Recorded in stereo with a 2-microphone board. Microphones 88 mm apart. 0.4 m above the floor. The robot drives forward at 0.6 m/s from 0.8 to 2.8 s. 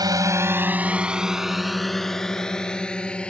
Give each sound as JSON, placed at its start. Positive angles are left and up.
{"t": 0.0, "sound": "a drone", "side_deg": -50}